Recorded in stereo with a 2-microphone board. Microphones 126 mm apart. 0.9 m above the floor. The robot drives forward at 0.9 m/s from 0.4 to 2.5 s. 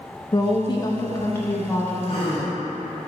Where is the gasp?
45° left (ahead or behind), 1.8 m; by 2.5 s 40° left (ahead or behind), 2 m.